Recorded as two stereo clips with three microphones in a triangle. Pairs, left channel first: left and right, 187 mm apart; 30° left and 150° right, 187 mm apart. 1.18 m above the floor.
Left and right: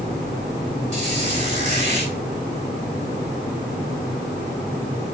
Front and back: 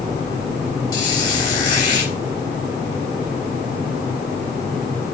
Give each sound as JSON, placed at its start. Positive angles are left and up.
{"t": 0.9, "sound": "a squeak", "azimuth_deg": -40, "distance_m": 3.5}